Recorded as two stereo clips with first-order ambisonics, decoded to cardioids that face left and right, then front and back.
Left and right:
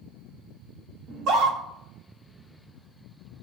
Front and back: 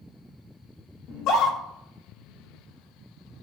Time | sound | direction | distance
1.1 | a scream | 45° right | 4 m